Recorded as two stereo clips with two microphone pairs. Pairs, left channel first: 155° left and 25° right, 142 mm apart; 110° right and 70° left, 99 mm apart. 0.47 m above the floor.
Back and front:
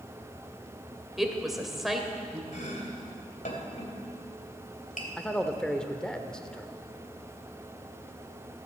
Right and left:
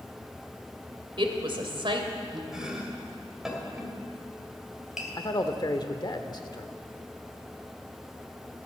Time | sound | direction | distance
1.2 | a woman speaking | 65° left | 1.9 m
2.5 | chopping | 155° left | 2.5 m
5.2 | a man speaking | 120° right | 1.1 m